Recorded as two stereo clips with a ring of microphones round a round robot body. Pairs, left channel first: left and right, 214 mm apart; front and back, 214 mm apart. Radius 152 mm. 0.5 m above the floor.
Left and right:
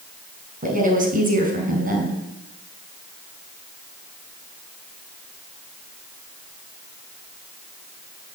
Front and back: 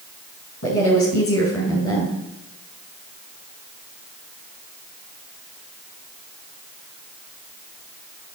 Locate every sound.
0.6 s a woman speaking: 40° right, 5 m